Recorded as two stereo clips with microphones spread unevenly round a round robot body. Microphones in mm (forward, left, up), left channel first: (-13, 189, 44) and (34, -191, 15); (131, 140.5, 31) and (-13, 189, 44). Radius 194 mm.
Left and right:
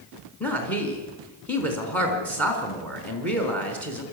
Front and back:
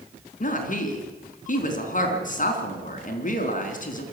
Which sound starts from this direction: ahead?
A woman speaking, at 0.4 s.